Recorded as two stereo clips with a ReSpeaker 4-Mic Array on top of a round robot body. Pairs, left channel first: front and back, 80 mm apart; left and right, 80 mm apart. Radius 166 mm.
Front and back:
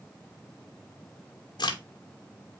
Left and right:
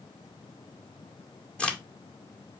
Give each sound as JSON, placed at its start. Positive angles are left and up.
{"t": 1.6, "sound": "a crack", "azimuth_deg": 15, "distance_m": 1.4}